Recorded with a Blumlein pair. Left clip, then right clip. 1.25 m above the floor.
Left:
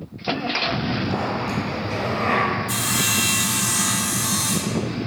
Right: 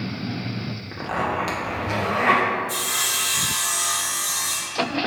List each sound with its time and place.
0.9 s a zipper: 30° right, 1.1 m
2.7 s sawing: 40° left, 1.0 m